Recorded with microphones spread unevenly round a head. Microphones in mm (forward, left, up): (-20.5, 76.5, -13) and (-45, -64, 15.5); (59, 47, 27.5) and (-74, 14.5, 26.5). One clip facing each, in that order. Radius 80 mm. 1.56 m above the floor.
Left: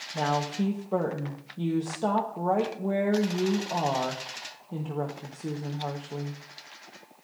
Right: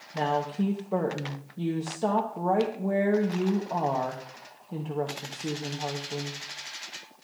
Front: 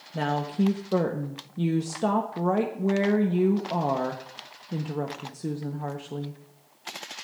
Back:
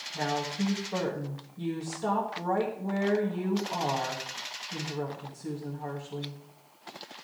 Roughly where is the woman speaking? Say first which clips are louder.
Right 1 dB, front 4 dB; ahead.